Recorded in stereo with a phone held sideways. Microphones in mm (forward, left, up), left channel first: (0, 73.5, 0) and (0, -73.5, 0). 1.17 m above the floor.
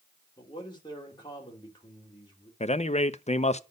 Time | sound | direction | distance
0.4 | a man speaking | 30° left (ahead or behind) | 3 m
2.6 | a man speaking | 50° left (ahead or behind) | 0.5 m